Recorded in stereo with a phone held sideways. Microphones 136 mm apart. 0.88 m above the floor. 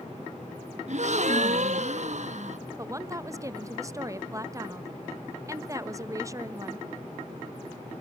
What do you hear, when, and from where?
0.9 s a gasp: 55° right (ahead or behind), 1.1 m
2.8 s a woman speaking: 20° right (ahead or behind), 0.8 m